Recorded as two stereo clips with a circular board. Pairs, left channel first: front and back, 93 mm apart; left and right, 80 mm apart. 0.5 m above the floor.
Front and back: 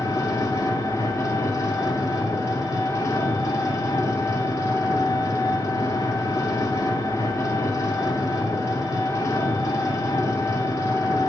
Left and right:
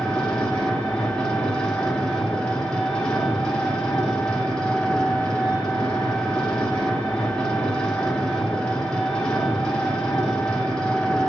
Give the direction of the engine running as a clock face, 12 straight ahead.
12 o'clock.